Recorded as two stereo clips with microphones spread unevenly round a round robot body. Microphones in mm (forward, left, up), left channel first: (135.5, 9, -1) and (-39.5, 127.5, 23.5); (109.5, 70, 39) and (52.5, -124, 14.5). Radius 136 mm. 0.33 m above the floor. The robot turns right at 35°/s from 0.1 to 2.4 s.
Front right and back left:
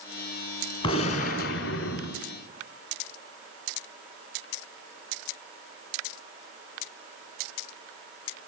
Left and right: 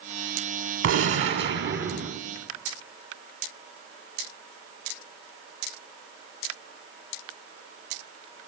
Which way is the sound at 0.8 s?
105° right.